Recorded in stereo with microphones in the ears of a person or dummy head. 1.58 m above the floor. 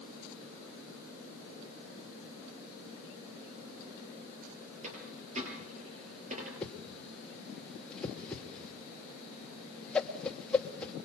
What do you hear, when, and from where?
4.8 s a dropped coin: 40° right (ahead or behind), 7 m
6.6 s a whoosh: 5° left (ahead or behind), 2 m